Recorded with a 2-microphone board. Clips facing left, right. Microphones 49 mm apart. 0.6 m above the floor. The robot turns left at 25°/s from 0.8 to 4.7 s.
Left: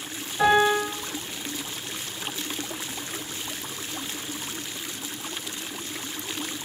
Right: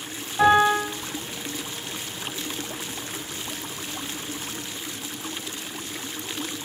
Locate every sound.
0.4 s a piano: 40° right (ahead or behind), 1.4 m; by 0.9 s 35° right (ahead or behind), 1.4 m